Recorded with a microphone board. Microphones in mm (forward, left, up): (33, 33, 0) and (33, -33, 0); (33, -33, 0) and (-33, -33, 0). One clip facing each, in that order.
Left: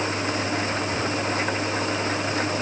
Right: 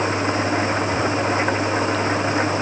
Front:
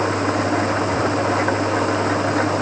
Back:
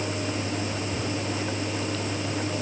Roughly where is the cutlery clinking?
I don't hear cutlery clinking.